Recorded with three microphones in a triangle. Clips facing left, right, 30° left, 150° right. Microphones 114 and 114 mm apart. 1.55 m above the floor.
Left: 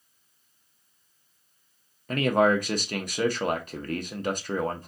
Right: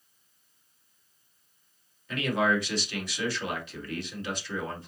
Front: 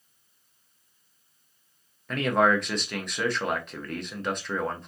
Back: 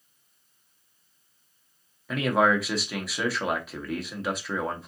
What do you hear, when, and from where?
2.1 s a man speaking: 125° left, 0.8 m